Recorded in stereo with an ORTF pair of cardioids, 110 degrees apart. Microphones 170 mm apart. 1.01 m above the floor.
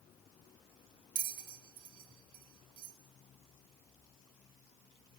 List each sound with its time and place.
1.1 s a bell: 55° right, 2 m